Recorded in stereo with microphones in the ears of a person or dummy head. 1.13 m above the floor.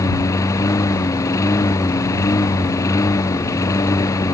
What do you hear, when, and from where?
0.0 s a lawn mower: 20° left (ahead or behind)